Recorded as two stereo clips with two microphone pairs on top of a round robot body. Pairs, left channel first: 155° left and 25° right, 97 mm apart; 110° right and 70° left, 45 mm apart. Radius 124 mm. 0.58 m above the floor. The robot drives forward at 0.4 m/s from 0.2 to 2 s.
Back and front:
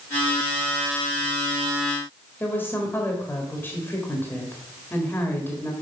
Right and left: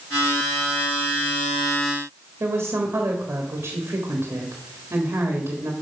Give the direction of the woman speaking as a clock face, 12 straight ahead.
9 o'clock.